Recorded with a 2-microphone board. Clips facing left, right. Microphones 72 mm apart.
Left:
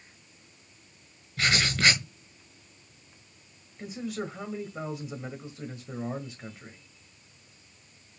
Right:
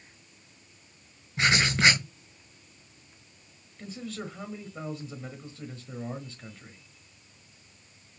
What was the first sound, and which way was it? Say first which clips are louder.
Writing: right 2 dB; 25° right (ahead or behind).